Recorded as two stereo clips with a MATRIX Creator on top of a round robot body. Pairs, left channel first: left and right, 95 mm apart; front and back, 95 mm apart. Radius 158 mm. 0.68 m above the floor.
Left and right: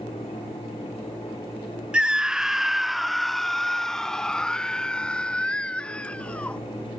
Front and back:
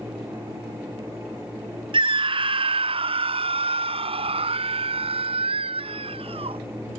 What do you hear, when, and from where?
1.9 s a scream: 170° right; by 6.6 s 165° left